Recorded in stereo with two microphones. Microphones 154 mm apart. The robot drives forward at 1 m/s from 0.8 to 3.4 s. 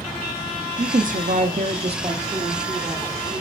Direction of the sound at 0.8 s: 55° right (ahead or behind).